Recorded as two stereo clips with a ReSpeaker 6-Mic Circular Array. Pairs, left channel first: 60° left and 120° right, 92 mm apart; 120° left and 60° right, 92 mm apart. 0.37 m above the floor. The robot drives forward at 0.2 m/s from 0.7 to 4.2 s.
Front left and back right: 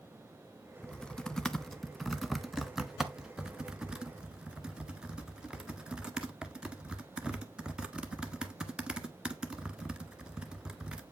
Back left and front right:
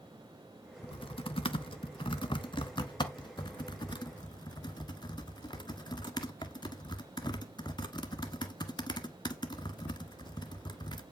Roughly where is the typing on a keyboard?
Behind left.